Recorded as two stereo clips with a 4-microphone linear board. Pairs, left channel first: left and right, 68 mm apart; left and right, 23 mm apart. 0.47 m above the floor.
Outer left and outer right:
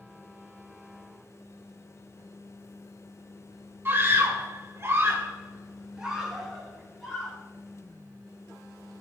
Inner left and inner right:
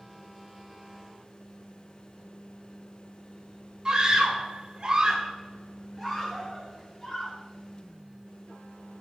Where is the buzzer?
I don't hear a buzzer.